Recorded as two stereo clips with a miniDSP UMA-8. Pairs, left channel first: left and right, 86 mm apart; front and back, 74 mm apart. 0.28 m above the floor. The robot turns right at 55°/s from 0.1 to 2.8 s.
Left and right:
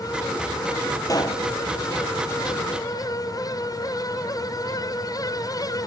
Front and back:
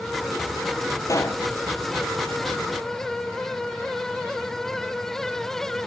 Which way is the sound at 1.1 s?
40° left.